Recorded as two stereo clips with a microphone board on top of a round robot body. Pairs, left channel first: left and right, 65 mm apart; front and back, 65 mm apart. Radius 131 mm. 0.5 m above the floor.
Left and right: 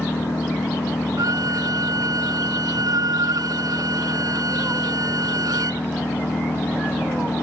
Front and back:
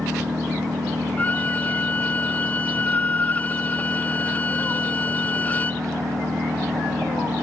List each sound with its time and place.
0.0 s an engine running: 150° left
1.2 s a violin: 65° right